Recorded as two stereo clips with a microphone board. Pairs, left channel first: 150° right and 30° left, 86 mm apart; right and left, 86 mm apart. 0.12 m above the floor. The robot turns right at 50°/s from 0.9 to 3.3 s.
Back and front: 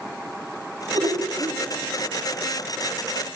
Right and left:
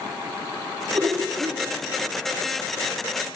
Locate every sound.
0.9 s laughter: 50° left, 3 m; by 1.6 s 85° left, 3 m